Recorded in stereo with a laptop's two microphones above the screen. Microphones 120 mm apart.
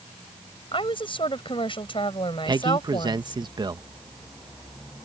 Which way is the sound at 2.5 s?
35° right (ahead or behind).